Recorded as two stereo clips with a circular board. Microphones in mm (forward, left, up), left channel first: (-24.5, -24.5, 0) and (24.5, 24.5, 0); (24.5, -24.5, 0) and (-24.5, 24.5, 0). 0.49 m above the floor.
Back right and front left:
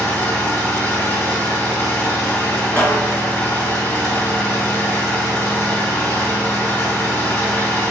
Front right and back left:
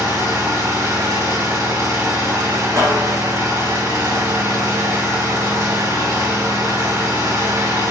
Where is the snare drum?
155° left, 3.5 m.